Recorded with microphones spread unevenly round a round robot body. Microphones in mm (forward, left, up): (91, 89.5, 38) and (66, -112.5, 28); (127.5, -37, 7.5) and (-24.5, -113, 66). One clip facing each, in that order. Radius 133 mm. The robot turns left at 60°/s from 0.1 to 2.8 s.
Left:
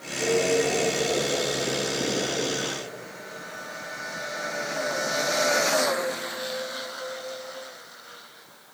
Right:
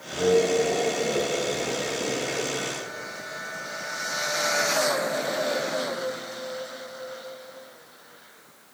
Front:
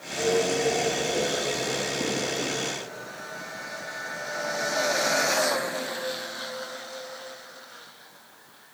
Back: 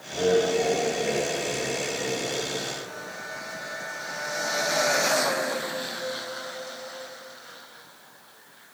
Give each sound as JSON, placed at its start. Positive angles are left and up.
{"t": 0.1, "sound": "laughter", "azimuth_deg": -90, "distance_m": 7.0}